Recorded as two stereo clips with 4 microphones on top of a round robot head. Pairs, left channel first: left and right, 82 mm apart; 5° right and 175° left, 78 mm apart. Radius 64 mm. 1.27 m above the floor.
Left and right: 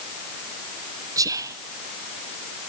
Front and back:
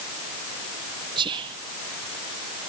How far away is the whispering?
About 0.6 m.